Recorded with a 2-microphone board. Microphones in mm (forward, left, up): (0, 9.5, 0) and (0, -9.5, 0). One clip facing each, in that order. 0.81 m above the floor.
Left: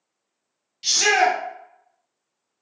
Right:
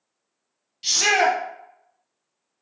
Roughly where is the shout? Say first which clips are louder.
Left 1 dB; centre.